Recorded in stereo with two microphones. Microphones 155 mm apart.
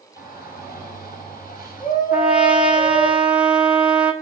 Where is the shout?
70° left (ahead or behind), 8.5 m; by 3.1 s 65° left (ahead or behind), 6.5 m.